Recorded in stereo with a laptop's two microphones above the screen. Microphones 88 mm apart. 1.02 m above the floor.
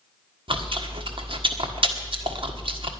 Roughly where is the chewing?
Right.